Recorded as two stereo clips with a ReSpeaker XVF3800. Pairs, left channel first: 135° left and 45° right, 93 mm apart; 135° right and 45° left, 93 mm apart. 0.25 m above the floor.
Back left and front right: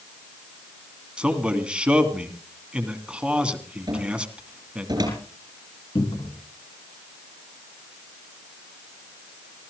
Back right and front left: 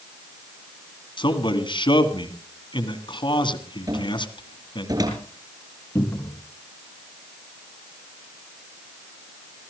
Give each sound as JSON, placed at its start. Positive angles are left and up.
{"t": 1.2, "sound": "a man speaking", "azimuth_deg": -125, "distance_m": 2.5}
{"t": 3.9, "sound": "a cupboard door", "azimuth_deg": 0, "distance_m": 7.0}
{"t": 6.0, "sound": "a cupboard door", "azimuth_deg": 160, "distance_m": 3.5}